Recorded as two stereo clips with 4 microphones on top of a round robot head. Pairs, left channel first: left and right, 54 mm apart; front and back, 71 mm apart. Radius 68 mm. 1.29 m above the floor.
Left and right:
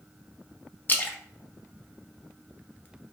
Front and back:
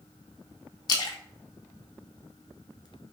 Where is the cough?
No cough in this recording.